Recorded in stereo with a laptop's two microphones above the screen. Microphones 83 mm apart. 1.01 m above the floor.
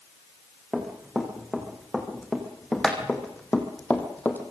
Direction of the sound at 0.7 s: Centre (ahead or behind).